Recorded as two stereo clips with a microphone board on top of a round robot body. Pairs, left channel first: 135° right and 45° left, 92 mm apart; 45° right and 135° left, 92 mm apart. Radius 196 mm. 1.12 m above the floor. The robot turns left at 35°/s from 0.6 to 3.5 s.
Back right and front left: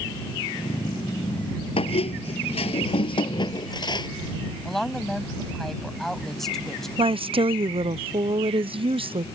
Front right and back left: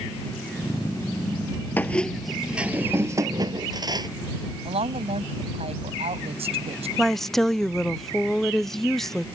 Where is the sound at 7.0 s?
40° left.